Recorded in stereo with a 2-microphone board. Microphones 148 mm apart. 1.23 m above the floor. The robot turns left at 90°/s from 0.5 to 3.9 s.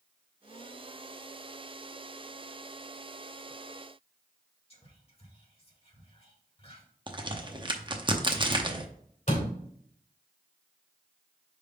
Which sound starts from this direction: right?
A crack, at 7.1 s.